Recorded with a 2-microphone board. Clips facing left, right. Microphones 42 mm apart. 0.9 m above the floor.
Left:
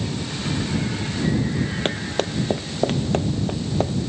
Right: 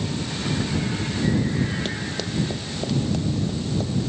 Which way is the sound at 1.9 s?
50° left (ahead or behind).